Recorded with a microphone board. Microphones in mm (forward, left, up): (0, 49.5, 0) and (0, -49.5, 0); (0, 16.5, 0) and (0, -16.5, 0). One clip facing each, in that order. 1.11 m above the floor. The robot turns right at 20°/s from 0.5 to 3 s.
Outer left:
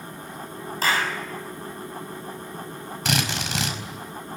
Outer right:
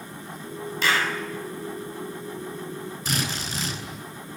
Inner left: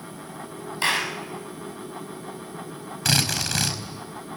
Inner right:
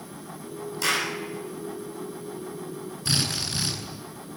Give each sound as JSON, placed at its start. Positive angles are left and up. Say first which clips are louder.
{"t": 0.8, "sound": "a clap", "louder": "even, inner left 2 dB", "side_deg": 40, "distance_m": 7.0}
{"t": 3.0, "sound": "a drill", "louder": "outer left 4 dB, inner left 4 dB", "side_deg": 90, "distance_m": 4.5}